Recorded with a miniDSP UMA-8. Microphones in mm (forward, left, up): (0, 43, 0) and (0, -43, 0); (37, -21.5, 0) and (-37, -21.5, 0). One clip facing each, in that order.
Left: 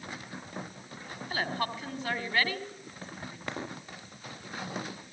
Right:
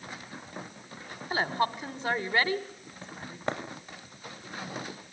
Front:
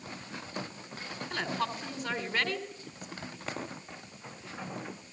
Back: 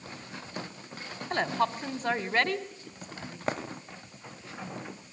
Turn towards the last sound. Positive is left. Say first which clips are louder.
# right 5 dB, back 7 dB
turn(degrees=-150)